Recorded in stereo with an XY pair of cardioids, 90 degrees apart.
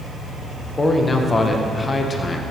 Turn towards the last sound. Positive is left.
turn(degrees=25)